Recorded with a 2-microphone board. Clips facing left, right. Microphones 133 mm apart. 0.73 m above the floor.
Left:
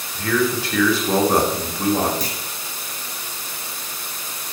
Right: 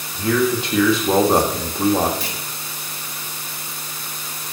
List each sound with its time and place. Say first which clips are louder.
0.1 s a man speaking: right 2 dB; 20° right (ahead or behind), 1.3 m
2.2 s a clunk: left 1 dB; 40° left (ahead or behind), 1.1 m